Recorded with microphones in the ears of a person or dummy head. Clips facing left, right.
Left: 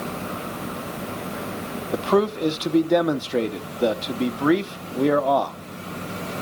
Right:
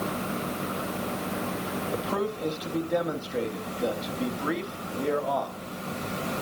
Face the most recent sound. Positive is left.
turn(degrees=70)  # may be behind; listen again after turning